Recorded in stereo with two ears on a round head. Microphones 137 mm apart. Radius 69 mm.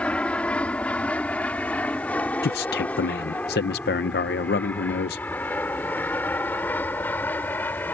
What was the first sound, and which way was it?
An aircraft, 10° left (ahead or behind).